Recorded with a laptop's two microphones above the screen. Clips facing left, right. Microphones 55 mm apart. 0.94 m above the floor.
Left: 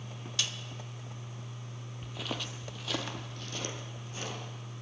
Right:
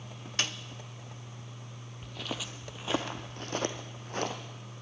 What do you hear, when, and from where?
0.4 s a snare drum: 45° right (ahead or behind), 0.7 m
2.0 s footsteps: 10° left (ahead or behind), 1.3 m; by 4.3 s 60° right (ahead or behind), 2.5 m